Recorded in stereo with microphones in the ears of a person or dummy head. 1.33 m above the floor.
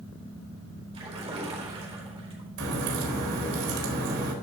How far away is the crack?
About 4 m.